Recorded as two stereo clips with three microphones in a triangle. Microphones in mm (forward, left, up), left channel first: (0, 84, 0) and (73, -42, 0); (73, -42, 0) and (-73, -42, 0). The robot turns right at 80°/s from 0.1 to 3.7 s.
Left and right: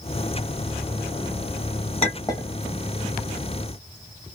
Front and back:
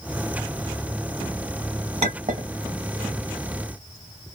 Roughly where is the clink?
Behind left.